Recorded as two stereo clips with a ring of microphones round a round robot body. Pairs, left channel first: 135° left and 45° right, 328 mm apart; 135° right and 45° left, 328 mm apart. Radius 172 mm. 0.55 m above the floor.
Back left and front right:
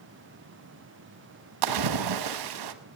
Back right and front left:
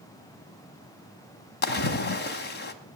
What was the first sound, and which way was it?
A splash, 75° right.